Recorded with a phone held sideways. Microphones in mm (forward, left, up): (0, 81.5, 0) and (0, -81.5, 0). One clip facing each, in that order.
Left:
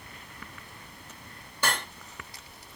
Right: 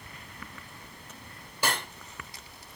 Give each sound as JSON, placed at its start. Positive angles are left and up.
{"t": 1.6, "sound": "cutlery clinking", "side_deg": -10, "distance_m": 3.0}